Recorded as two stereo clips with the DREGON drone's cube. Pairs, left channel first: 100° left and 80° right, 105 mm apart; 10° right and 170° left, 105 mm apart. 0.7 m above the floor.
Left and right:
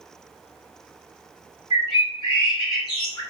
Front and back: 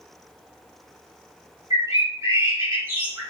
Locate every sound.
1.7 s a bird: 115° left, 1.8 m